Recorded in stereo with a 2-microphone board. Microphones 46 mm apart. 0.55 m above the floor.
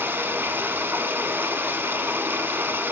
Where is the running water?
55° right (ahead or behind), 0.7 m.